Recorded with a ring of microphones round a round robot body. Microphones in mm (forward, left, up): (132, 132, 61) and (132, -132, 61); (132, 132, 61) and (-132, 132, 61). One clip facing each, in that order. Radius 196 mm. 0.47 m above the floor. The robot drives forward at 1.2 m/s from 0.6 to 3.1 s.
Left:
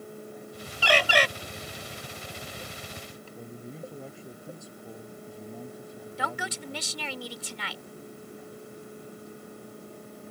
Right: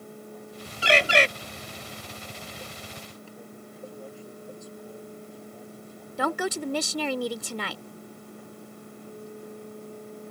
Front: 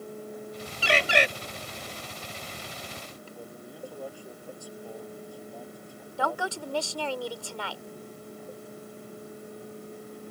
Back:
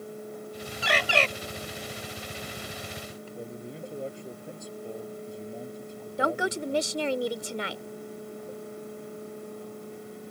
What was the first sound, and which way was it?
A bird, 35° right.